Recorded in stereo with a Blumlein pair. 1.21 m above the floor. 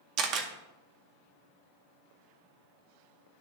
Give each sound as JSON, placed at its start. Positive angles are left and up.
{"t": 0.2, "sound": "a camera shutter", "azimuth_deg": -35, "distance_m": 1.0}